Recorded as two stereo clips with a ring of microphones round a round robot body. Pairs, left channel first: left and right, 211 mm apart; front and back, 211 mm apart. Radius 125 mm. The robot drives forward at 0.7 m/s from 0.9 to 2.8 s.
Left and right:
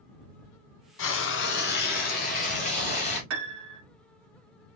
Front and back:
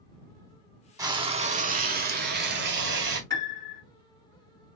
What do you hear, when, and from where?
1.0 s frying: 105° left, 1.1 m; by 3.2 s 150° left, 1.9 m
3.3 s a piano: 75° right, 1.1 m